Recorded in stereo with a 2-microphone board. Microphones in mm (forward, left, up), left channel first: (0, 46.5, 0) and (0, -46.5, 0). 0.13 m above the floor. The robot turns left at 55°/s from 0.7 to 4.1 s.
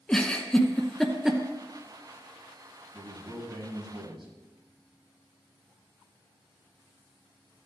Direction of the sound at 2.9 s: 5° left.